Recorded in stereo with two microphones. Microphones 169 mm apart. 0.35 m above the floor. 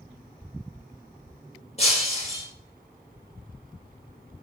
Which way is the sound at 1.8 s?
40° left (ahead or behind).